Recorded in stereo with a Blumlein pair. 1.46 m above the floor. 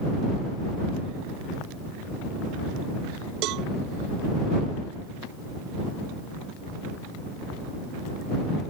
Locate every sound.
3.4 s a cowbell: 40° right